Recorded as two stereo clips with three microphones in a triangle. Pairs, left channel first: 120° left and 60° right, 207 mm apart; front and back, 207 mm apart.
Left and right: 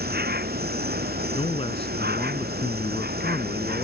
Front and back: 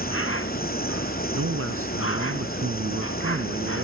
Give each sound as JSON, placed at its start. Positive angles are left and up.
{"t": 0.0, "sound": "an insect", "azimuth_deg": -15}
{"t": 1.3, "sound": "a man speaking", "azimuth_deg": -175}